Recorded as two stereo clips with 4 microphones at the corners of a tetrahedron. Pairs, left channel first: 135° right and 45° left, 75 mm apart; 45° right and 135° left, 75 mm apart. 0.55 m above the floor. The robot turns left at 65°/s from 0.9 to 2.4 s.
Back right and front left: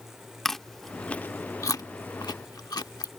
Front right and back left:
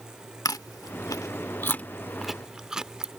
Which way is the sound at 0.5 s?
50° right.